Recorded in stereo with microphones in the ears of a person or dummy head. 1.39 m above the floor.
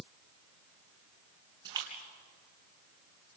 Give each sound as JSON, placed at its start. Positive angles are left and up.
{"t": 1.6, "sound": "a splash", "side_deg": -25, "distance_m": 4.0}